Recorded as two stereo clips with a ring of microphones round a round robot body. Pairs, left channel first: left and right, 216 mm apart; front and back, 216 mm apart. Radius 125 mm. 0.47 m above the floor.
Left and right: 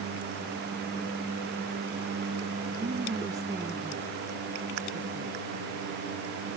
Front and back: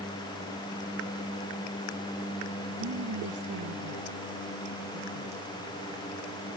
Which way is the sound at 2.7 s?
155° right.